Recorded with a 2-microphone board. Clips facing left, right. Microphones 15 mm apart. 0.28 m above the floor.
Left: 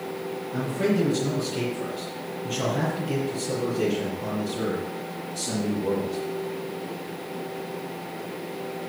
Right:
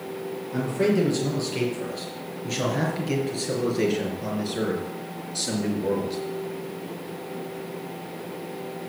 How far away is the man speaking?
About 5.5 m.